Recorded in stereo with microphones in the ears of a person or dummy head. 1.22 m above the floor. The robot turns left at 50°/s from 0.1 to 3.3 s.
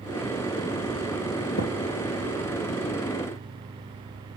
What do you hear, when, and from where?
1.6 s a thud: 50° left (ahead or behind), 3 m; by 1.7 s 40° left (ahead or behind), 3 m